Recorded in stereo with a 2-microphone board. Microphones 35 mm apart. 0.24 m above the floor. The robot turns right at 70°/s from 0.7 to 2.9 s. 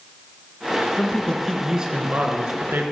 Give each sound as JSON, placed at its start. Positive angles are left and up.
{"t": 1.0, "sound": "a man speaking", "azimuth_deg": 145, "distance_m": 3.0}